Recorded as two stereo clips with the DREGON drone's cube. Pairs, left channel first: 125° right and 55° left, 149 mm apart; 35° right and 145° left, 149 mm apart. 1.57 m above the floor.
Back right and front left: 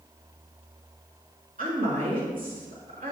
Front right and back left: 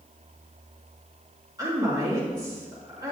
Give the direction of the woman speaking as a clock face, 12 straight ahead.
9 o'clock.